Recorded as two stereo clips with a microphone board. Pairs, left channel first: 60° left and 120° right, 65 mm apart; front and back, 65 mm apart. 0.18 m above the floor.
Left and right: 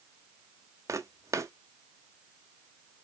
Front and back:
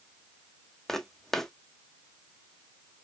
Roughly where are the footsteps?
Right.